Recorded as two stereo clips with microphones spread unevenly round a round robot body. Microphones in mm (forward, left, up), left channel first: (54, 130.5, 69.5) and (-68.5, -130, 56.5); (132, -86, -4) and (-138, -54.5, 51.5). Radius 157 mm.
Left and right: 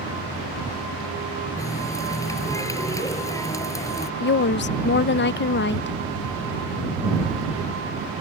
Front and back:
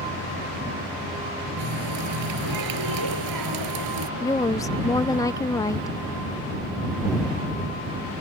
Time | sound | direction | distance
1.6 | a running tap | 145° left | ?
4.2 | a woman speaking | 45° left | ?